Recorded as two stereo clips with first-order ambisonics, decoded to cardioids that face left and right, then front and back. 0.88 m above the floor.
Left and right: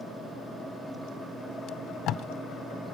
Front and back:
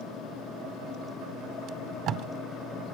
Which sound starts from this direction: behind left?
Tape being pulled, at 1.7 s.